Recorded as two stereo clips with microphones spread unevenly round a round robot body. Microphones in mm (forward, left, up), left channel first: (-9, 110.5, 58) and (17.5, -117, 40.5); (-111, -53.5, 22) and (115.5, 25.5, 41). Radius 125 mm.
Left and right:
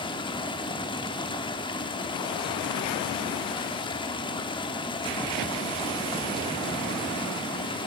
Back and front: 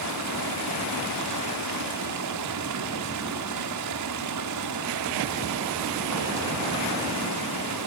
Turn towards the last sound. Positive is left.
turn(degrees=25)